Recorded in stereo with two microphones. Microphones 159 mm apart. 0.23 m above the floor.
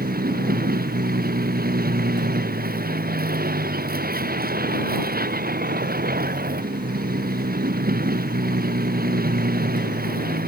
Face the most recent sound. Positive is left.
turn(degrees=-85)